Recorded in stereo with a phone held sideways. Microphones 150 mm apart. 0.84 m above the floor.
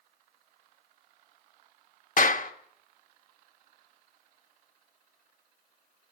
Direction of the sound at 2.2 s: 60° left (ahead or behind).